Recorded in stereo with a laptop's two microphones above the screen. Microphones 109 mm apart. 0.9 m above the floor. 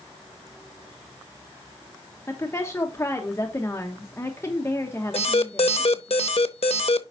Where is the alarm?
70° left (ahead or behind), 0.7 m.